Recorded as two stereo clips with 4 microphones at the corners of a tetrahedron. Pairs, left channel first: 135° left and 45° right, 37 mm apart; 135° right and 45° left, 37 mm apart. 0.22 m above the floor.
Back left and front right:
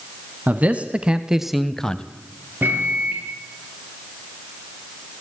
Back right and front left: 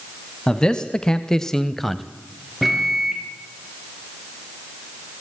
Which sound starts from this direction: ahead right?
A microwave, at 2.6 s.